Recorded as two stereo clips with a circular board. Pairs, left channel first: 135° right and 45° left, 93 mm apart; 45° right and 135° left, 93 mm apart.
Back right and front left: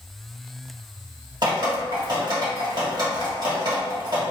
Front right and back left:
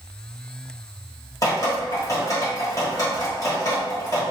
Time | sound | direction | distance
1.4 | dripping | 5° left | 1.3 m